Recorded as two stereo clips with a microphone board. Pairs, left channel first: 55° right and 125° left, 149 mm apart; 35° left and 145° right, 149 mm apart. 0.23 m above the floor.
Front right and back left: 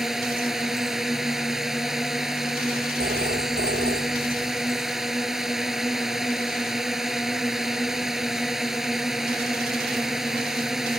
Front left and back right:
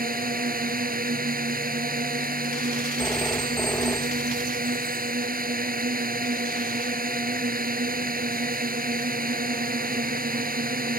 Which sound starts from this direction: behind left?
A phone ringing, at 3.0 s.